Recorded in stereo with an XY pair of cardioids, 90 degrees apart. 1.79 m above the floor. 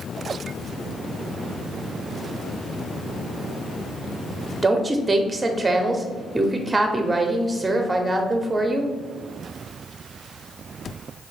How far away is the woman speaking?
About 0.9 m.